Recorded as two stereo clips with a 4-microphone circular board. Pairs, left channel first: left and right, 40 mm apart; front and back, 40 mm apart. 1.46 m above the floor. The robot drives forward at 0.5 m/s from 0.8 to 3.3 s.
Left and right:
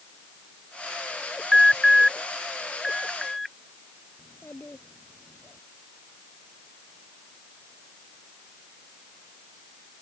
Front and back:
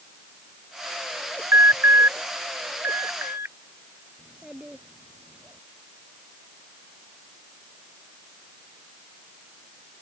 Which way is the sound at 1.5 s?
Straight behind.